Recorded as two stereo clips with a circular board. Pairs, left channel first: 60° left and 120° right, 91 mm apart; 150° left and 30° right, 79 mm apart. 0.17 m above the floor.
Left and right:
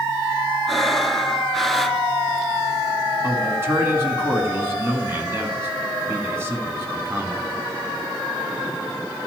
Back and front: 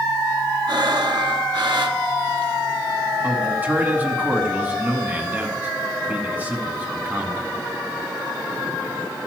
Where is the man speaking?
80° right, 1.6 m.